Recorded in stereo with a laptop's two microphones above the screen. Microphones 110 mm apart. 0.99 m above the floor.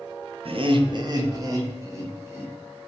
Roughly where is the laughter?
Right.